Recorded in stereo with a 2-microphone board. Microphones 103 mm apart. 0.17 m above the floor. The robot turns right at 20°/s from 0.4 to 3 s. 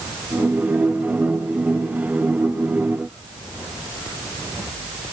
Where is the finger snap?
I don't hear a finger snap.